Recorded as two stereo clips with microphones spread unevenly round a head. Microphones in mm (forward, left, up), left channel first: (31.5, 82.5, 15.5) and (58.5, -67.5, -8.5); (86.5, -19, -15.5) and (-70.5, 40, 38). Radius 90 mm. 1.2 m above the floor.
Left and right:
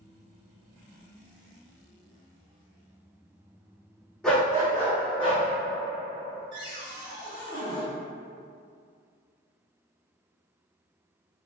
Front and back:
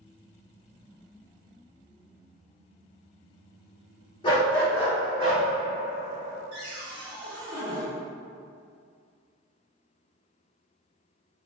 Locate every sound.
4.2 s a dog barking: 45° left, 0.7 m; by 5.5 s 135° left, 1.0 m
6.5 s a cupboard door: 150° right, 0.7 m